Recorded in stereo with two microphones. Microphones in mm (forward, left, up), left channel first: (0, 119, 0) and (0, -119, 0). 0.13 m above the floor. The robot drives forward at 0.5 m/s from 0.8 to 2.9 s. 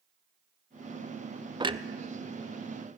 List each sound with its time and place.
1.6 s a clunk: 20° right (ahead or behind), 0.7 m